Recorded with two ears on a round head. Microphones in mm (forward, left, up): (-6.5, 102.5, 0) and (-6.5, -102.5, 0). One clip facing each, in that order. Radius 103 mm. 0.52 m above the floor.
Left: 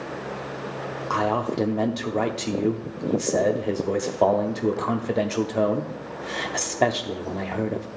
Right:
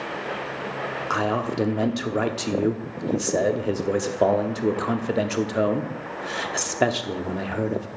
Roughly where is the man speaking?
Centre.